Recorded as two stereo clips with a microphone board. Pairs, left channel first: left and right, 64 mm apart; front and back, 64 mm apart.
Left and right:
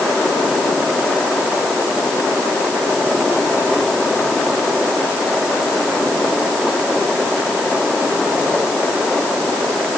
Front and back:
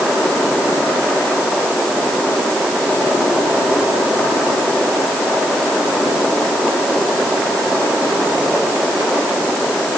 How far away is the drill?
No drill in this recording.